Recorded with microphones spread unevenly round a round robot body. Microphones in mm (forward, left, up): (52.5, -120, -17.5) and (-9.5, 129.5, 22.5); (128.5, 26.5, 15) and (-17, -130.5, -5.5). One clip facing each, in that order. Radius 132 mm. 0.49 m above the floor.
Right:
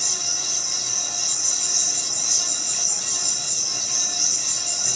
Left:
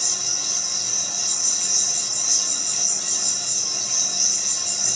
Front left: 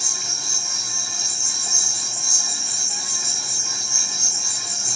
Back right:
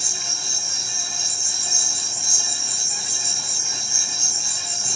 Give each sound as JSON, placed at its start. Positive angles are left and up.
{"t": 0.0, "sound": "an insect", "azimuth_deg": 170, "distance_m": 5.0}